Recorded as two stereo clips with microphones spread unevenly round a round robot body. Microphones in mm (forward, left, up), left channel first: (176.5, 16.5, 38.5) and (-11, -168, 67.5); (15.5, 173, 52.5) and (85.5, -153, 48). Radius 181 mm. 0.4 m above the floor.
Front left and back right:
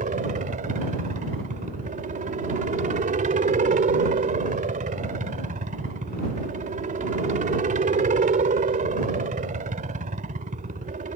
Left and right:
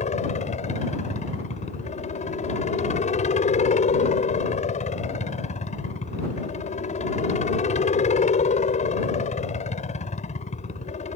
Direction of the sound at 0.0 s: 165° left.